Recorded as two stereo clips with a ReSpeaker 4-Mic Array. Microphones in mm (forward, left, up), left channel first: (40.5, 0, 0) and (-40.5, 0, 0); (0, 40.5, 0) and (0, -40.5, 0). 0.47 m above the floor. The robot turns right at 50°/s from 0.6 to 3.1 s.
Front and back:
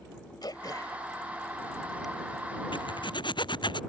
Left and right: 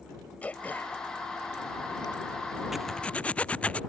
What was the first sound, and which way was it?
Throat clearing, 20° left.